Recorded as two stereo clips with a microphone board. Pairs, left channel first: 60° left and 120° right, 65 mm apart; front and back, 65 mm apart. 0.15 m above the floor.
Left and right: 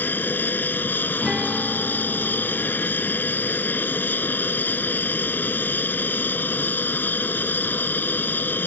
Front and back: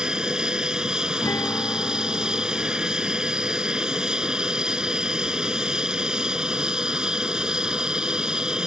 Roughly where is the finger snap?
I don't hear a finger snap.